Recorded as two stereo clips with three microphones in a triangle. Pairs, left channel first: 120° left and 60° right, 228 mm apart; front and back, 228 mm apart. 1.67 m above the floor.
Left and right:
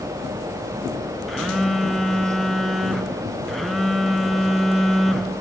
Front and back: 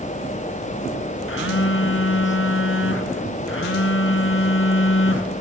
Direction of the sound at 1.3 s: 30° left.